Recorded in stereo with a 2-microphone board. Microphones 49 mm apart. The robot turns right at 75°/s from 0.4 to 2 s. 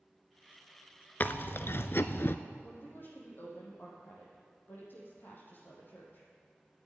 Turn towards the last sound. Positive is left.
turn(degrees=45)  # may be behind; listen again after turning